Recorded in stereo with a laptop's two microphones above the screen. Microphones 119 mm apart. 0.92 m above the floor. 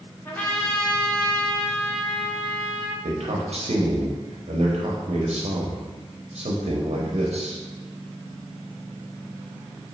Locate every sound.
0.2 s a trumpet: 15° left (ahead or behind), 1.0 m
3.0 s a man speaking: 70° right (ahead or behind), 0.7 m